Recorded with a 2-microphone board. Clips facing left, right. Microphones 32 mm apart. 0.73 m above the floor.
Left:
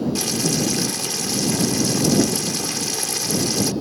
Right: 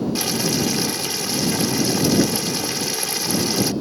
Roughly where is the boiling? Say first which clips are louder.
Even; centre.